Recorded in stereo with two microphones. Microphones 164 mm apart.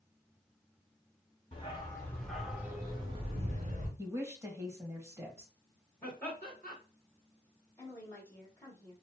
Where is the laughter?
10° left (ahead or behind), 2.5 m.